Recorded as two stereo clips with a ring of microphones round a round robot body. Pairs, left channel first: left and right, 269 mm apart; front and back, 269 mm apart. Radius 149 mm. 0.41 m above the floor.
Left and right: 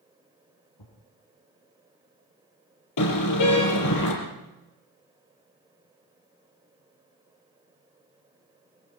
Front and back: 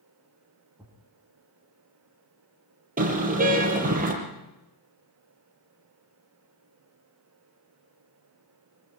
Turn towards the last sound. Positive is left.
turn(degrees=120)